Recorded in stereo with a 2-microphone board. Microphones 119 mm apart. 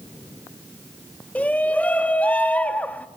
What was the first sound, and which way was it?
A shout, 10° left (ahead or behind).